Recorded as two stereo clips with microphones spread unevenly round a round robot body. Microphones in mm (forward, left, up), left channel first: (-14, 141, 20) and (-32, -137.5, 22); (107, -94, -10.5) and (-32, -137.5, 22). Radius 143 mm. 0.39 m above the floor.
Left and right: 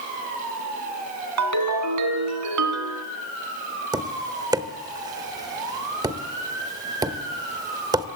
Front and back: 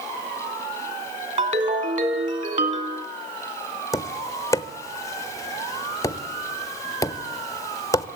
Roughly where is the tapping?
Ahead.